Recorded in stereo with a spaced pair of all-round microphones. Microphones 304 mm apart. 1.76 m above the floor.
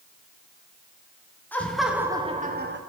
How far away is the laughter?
About 1.2 m.